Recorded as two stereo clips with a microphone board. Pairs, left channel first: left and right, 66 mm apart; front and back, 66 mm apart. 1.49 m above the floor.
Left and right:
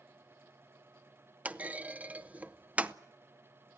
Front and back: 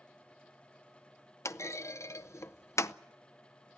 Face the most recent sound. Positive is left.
turn(degrees=-25)